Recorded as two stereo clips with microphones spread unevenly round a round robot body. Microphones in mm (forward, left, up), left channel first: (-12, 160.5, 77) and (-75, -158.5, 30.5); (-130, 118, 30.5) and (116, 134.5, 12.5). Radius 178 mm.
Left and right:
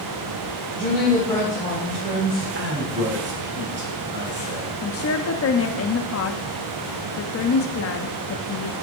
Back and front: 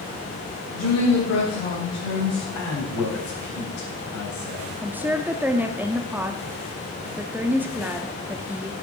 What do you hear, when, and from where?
0.7 s a woman speaking: 160° left, 3.5 m
2.5 s a man speaking: 155° right, 3.5 m
4.8 s a woman speaking: 75° left, 1.1 m